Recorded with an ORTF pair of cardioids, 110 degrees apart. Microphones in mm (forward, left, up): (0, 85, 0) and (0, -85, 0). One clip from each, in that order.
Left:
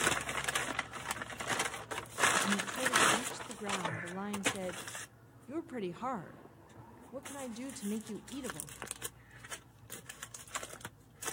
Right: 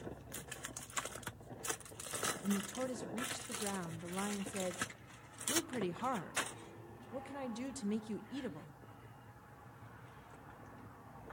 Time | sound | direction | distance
2.4 | a woman speaking | 5° left | 1.7 m